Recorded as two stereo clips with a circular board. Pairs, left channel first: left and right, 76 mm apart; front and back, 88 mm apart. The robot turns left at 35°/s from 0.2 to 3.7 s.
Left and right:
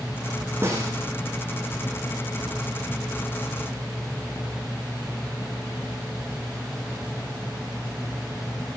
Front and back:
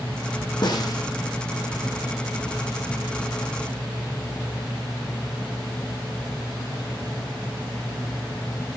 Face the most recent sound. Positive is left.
turn(degrees=-140)